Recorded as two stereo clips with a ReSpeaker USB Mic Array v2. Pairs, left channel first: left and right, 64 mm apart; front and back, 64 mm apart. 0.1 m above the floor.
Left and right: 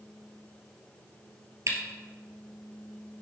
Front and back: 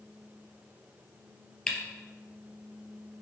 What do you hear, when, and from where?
1.7 s a camera shutter: 70° right, 2.5 m